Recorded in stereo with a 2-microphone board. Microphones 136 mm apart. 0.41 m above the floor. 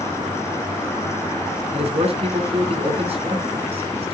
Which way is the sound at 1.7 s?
45° right (ahead or behind).